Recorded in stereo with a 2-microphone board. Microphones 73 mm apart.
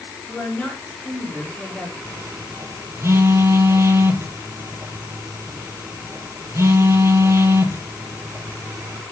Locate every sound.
0.3 s a woman speaking: 10° left (ahead or behind), 8.5 m
2.0 s a phone buzzing: 35° right (ahead or behind), 2.5 m